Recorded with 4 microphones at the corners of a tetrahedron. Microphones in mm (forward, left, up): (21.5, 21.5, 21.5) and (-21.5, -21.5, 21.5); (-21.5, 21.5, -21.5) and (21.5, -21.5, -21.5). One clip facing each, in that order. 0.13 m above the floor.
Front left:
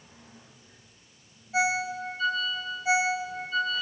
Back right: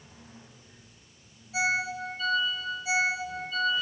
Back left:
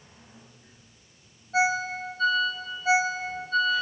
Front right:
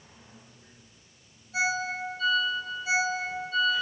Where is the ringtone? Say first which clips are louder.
Front left 2 dB, back left 4 dB; 100° left, 2.5 m.